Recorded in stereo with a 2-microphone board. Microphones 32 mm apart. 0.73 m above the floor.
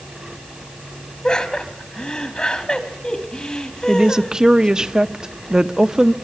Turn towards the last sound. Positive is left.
turn(degrees=-20)  # may be behind; listen again after turning